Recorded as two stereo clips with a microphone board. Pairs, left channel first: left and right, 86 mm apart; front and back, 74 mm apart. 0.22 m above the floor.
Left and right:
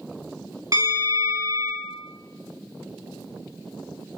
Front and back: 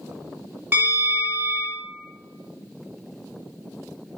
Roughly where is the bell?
Behind right.